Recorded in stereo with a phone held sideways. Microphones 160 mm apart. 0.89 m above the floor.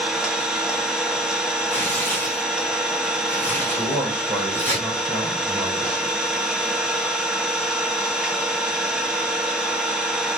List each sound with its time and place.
0.0 s an engine running: 5° right (ahead or behind), 1.0 m
1.7 s tearing paper: 15° left (ahead or behind), 1.7 m
3.8 s a man speaking: 5° right (ahead or behind), 2 m